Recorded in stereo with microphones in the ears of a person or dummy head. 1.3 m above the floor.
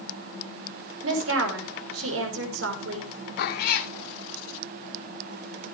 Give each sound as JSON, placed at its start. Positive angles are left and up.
{"t": 1.0, "sound": "a woman speaking", "side_deg": -80, "distance_m": 5.5}
{"t": 3.4, "sound": "a cat meowing", "side_deg": 50, "distance_m": 1.3}